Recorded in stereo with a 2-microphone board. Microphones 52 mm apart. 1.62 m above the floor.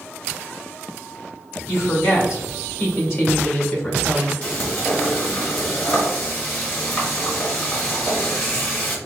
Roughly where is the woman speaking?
Left.